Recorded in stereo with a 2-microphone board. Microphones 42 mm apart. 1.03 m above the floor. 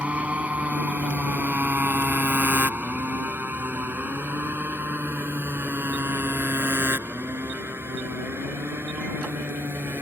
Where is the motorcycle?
30° right (ahead or behind); by 10.0 s 65° right (ahead or behind).